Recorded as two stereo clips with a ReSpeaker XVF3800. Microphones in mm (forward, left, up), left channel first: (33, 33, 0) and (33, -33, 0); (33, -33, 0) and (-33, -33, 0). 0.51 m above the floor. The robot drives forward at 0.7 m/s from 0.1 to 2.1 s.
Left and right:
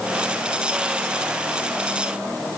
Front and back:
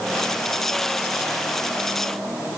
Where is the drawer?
No drawer in this recording.